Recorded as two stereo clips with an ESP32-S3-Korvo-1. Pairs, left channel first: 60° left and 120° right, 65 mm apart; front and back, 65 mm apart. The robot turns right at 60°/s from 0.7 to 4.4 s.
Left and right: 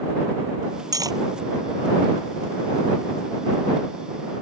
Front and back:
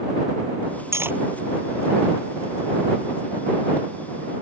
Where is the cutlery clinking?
135° right; by 1.2 s 120° right.